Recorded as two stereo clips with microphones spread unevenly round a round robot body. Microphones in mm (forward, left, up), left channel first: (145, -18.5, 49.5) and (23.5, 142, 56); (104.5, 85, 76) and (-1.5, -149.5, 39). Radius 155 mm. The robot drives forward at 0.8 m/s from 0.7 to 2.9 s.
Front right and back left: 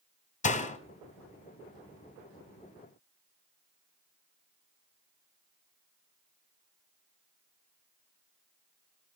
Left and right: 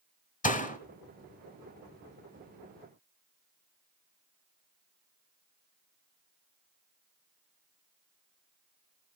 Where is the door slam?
Straight ahead, 1.6 m.